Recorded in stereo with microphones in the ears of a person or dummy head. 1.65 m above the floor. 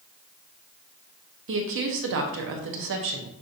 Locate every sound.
1.5 s a woman speaking: 65° right (ahead or behind), 0.7 m